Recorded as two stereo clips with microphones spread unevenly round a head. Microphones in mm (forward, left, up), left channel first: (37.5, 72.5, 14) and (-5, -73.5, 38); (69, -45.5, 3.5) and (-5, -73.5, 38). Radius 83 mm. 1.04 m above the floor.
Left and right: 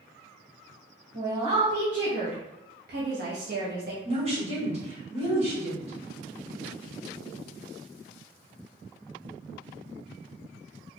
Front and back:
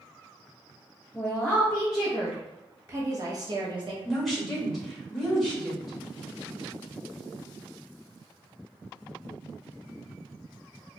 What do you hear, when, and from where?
1.1 s a woman speaking: 50° right, 1.3 m; by 4.0 s 135° right, 0.8 m
4.0 s a woman speaking: 55° right, 1.9 m